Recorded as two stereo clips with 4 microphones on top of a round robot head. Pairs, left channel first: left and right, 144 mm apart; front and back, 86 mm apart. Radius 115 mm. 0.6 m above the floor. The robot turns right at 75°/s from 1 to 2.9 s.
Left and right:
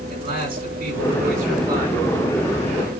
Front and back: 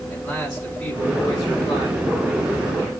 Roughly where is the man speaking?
Right.